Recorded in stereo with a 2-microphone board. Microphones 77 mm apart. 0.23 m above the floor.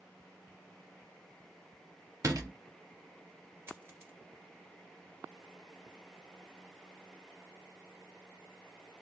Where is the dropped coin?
30° right (ahead or behind), 1.6 m.